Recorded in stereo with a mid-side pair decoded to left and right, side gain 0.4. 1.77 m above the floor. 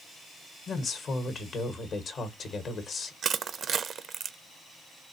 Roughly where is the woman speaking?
Ahead left.